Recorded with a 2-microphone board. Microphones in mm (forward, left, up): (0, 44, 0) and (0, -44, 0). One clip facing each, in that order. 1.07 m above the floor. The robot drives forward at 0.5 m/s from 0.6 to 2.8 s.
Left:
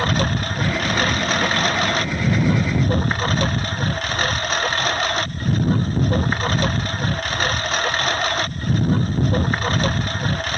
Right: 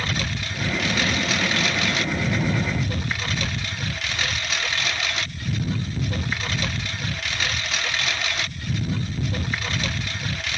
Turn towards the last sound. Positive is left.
turn(degrees=45)  # may be behind; listen again after turning